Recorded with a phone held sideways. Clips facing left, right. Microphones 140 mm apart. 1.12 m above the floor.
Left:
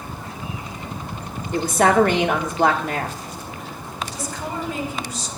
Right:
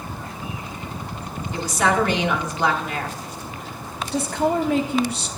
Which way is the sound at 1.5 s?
50° left (ahead or behind).